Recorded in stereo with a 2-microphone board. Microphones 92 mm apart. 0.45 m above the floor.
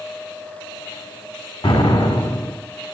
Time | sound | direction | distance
1.6 | an explosion | 75° left (ahead or behind) | 1.7 m